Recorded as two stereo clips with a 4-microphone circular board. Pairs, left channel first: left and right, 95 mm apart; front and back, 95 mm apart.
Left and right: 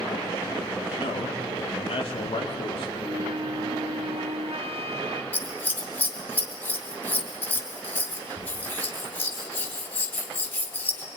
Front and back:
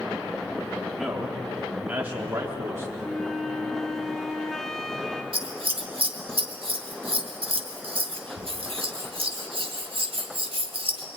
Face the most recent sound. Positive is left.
turn(degrees=160)